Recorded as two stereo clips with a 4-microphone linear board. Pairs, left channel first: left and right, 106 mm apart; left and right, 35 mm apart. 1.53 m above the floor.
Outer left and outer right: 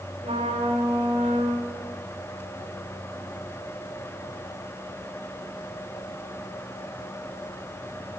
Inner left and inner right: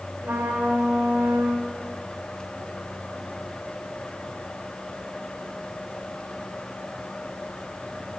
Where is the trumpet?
85° right, 6 m.